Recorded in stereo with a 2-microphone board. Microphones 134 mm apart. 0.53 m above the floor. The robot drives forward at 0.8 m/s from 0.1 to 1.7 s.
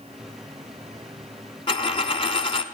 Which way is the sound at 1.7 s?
45° left (ahead or behind).